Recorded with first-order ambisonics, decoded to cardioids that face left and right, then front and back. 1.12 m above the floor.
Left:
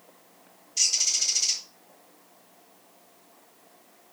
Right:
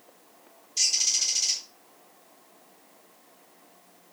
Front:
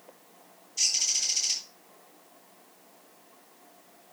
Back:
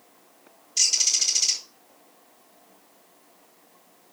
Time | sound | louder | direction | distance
0.8 | a bird | even, back 5 dB | straight behind | 4.5 m